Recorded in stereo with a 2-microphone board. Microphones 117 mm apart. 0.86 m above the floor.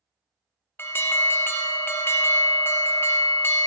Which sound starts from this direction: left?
An alarm, at 0.8 s.